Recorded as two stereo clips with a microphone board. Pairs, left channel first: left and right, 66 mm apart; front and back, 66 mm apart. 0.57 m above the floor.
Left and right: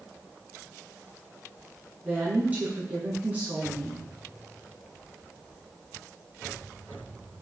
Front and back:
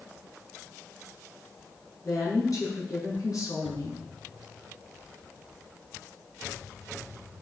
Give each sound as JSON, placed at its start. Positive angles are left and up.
{"t": 2.0, "sound": "a woman speaking", "azimuth_deg": -30, "distance_m": 5.0}